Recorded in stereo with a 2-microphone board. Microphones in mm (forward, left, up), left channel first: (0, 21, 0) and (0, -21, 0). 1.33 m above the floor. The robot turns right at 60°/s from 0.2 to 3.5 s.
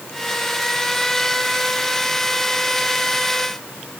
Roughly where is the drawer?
I don't hear a drawer.